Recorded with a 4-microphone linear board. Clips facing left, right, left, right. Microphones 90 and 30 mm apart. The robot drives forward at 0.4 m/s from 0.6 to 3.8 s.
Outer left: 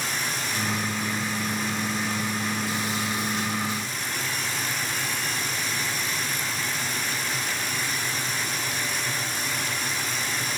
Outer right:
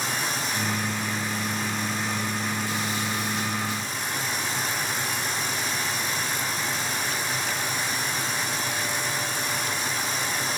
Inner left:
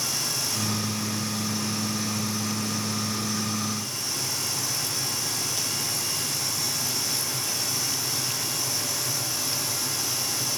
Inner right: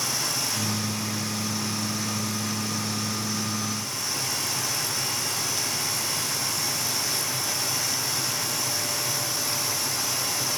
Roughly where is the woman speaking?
I don't hear a woman speaking.